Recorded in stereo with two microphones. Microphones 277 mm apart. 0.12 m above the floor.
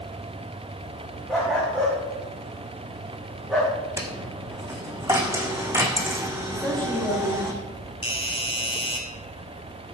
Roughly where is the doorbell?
Left.